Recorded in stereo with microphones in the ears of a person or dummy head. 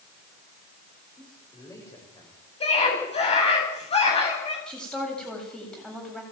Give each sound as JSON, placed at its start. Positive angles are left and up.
{"t": 1.2, "sound": "a man speaking", "side_deg": 20, "distance_m": 7.0}
{"t": 2.6, "sound": "a scream", "side_deg": 30, "distance_m": 8.5}
{"t": 4.7, "sound": "a woman speaking", "side_deg": 5, "distance_m": 8.0}